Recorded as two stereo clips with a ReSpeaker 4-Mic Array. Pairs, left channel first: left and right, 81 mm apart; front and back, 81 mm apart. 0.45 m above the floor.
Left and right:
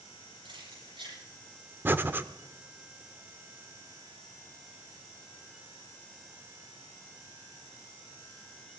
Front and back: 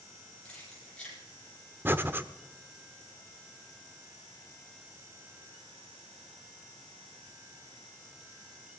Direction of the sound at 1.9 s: 140° right.